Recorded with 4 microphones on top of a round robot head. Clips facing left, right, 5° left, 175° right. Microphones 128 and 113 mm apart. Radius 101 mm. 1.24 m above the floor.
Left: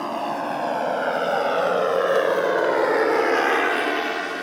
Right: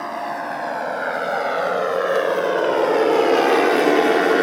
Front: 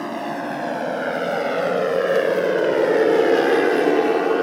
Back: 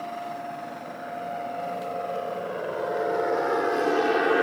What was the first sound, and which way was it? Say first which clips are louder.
A motorcycle: left 1 dB, front 7 dB; 15° left.